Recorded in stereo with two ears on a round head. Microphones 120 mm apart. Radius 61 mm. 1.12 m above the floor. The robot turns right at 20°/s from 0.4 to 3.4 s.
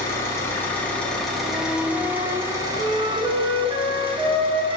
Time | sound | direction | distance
0.0 | an engine running | 160° left | 1.6 m
1.4 | a flute | 170° right | 1.4 m